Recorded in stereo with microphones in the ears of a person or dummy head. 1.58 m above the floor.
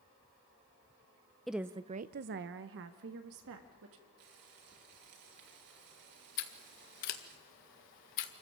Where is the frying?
60° right (ahead or behind), 4.5 m.